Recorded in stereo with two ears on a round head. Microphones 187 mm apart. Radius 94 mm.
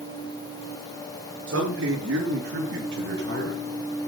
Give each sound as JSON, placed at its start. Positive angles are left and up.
{"t": 1.5, "sound": "a man speaking", "side_deg": -65, "distance_m": 7.0}